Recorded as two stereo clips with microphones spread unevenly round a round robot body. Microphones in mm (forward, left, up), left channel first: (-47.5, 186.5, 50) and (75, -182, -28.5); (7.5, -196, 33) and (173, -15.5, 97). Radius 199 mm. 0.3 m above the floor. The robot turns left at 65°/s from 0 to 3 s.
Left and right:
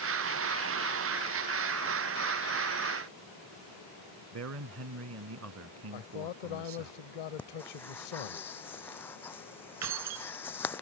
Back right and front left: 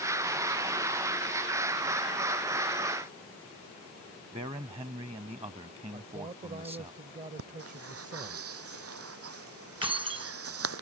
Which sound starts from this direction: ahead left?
Breathing, at 7.4 s.